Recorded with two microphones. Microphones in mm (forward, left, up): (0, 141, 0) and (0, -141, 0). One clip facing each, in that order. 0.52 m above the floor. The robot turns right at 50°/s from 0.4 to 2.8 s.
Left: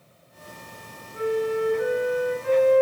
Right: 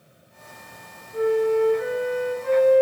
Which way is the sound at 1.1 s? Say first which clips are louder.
Right 5 dB; 130° right.